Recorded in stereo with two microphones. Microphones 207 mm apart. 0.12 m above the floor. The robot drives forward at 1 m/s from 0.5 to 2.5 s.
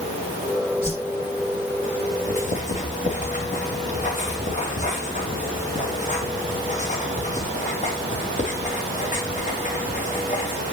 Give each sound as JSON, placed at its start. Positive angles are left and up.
{"t": 0.8, "sound": "a whoosh", "side_deg": -10, "distance_m": 2.5}
{"t": 2.3, "sound": "writing", "side_deg": 40, "distance_m": 3.0}